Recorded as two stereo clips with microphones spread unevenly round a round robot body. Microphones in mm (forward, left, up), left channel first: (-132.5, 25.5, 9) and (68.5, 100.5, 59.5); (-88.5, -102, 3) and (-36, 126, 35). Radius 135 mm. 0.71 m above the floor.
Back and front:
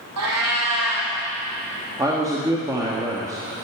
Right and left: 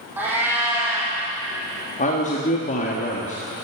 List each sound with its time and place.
0.2 s a cat meowing: 5° right, 3 m
2.0 s a man speaking: 65° right, 1.5 m